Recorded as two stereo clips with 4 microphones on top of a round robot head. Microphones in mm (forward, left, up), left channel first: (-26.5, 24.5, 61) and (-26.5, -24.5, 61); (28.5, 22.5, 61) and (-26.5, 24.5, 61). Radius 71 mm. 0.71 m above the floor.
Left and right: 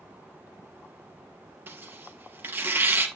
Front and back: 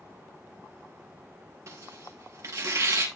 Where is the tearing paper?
140° right, 3 m.